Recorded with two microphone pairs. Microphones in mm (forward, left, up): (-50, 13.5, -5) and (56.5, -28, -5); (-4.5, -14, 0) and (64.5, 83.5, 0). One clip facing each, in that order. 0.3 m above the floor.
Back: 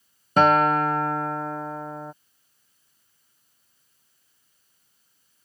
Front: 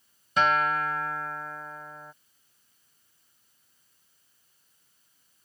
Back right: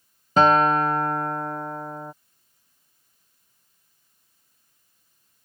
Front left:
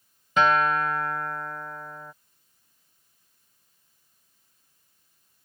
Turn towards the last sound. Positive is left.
turn(degrees=-175)